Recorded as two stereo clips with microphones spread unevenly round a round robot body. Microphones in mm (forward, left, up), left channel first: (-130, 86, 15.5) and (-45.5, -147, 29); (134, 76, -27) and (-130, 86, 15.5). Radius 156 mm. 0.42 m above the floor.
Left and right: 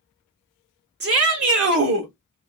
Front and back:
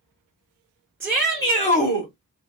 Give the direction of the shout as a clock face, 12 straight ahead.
3 o'clock.